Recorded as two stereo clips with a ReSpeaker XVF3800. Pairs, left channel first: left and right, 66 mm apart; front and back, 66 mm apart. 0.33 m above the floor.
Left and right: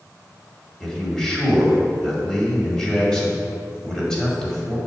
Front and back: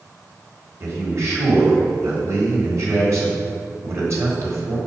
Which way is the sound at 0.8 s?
165° left.